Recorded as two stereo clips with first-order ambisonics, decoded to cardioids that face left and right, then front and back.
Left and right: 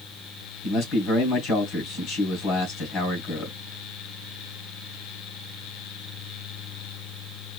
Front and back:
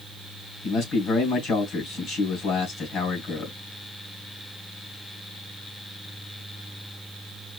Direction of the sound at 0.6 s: 55° left.